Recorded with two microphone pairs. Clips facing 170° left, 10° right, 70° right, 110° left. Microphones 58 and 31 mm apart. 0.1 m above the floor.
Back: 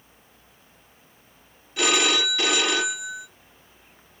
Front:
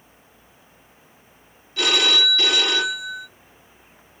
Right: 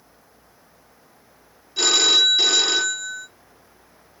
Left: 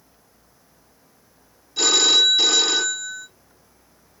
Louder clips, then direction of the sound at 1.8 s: Front 1 dB, even; 130° right.